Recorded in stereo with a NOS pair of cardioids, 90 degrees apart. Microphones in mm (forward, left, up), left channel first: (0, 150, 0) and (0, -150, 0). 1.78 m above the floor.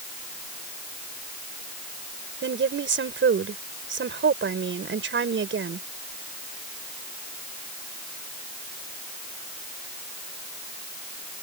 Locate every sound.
2.4 s a woman speaking: 40° right